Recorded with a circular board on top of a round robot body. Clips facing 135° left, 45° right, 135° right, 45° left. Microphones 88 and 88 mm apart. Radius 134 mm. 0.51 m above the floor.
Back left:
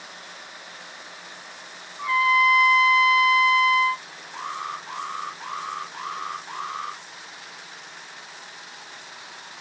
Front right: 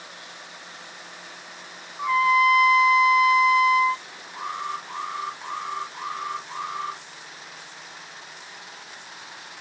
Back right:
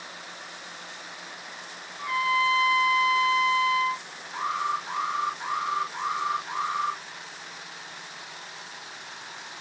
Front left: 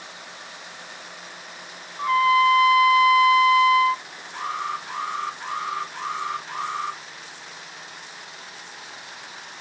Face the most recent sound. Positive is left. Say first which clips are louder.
# front right 1 dB, back right 1 dB
turn(degrees=155)